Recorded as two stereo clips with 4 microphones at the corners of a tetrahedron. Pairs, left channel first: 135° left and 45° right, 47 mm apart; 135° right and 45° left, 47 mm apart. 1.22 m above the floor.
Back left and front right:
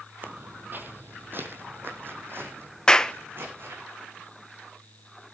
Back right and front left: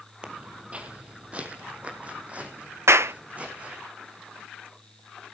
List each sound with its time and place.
0.2 s footsteps: 10° right, 1.8 m
2.9 s a clap: 60° left, 0.5 m